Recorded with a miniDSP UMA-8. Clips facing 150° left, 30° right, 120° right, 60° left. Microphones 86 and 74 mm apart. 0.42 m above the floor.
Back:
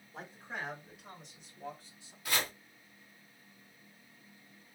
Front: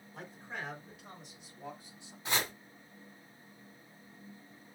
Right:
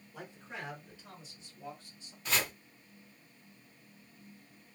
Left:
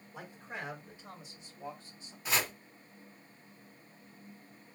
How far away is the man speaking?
About 1.5 m.